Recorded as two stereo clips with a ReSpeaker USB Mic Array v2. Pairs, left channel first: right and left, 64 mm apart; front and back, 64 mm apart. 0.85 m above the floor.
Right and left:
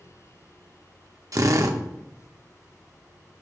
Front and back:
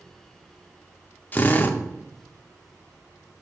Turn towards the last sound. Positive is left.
turn(degrees=60)